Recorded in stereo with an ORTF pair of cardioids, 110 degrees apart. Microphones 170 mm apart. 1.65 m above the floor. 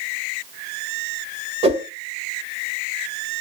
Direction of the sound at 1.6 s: 40° right.